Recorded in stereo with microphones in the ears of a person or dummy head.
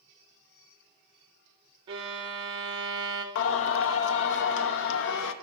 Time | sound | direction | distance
1.9 | a violin | 25° right (ahead or behind) | 0.8 m
3.4 | singing | 70° left (ahead or behind) | 0.6 m